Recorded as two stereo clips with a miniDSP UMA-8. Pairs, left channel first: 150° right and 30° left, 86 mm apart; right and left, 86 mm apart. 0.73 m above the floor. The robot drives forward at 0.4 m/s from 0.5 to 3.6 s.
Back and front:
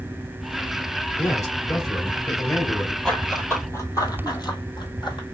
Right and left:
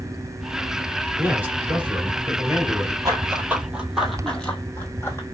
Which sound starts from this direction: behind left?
Running footsteps, at 3.0 s.